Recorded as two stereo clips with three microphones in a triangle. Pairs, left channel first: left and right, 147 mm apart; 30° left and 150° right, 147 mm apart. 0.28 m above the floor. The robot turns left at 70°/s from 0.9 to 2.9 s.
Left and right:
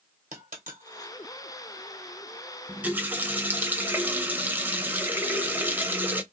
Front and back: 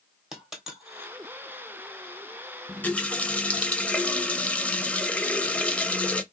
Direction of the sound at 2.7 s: 20° right.